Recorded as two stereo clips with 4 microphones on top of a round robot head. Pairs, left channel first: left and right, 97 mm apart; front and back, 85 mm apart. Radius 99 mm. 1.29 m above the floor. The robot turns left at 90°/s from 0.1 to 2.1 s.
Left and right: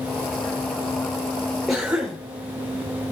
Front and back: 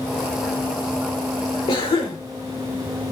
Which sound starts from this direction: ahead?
A cough, at 1.7 s.